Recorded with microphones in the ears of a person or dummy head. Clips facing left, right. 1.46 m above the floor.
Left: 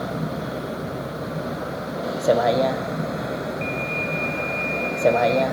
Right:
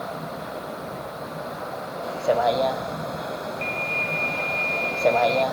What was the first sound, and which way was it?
A vehicle, 35° left (ahead or behind).